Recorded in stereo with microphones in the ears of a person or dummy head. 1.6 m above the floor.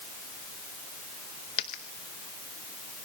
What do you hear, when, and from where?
1.6 s a dropped coin: 25° left (ahead or behind), 0.9 m